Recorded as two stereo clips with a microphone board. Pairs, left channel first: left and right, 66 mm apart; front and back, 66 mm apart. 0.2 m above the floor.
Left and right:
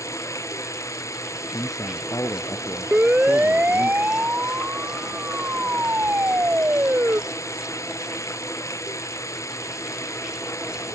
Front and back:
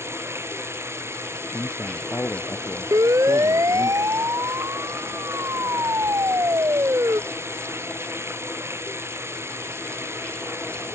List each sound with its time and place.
0.0 s running water: 130° left
1.5 s a man speaking: 55° left
2.9 s a siren: 160° right; by 7.2 s 145° right